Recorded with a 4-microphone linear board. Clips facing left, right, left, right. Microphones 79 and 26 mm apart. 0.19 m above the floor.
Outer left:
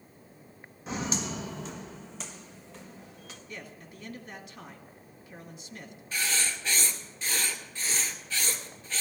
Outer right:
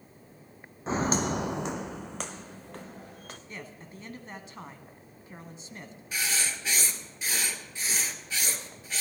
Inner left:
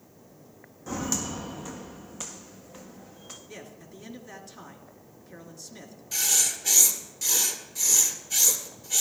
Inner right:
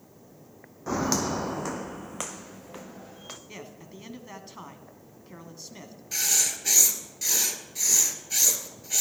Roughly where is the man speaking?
Right.